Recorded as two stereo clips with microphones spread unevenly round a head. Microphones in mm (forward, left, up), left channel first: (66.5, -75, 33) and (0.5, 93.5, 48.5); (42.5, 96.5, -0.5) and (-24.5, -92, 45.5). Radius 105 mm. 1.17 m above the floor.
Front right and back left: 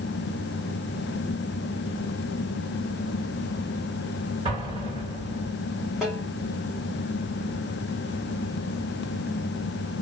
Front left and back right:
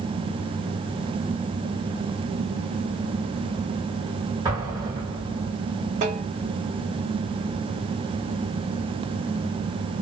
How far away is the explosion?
About 2.5 m.